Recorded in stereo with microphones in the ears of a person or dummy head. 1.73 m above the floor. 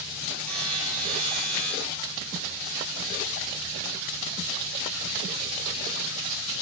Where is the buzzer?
45° right (ahead or behind), 3 m.